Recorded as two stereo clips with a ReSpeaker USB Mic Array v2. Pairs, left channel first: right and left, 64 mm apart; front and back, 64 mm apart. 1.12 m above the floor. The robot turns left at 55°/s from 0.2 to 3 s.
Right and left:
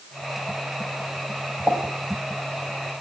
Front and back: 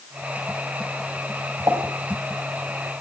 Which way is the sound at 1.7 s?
160° left.